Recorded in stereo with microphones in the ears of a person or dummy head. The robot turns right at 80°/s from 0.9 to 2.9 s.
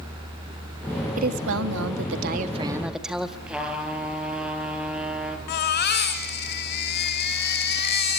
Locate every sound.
1.2 s a woman speaking: 140° right, 1.8 m; by 3.4 s straight ahead, 1.8 m
3.5 s a trumpet: 5° right (ahead or behind), 4 m
5.5 s a baby crying: 55° left (ahead or behind), 2 m